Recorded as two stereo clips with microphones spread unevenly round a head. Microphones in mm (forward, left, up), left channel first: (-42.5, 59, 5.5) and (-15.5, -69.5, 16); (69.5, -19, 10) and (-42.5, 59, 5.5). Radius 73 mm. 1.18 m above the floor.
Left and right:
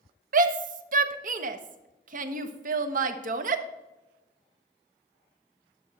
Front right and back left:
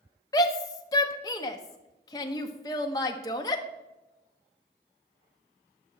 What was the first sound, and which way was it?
A shout, 105° right.